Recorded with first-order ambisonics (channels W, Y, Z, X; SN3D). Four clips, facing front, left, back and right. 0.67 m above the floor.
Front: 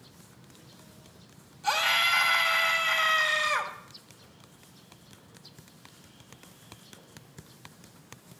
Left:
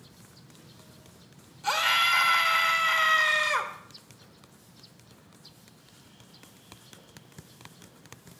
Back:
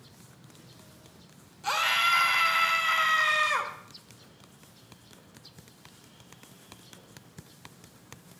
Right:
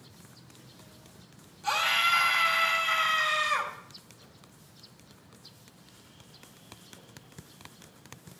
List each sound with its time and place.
1.6 s a scream: 125° left, 1.2 m